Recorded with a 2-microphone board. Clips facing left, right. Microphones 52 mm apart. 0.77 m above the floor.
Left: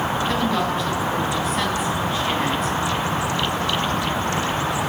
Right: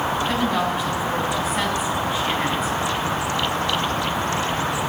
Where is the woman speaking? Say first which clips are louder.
Even; 5° right (ahead or behind), 4 m.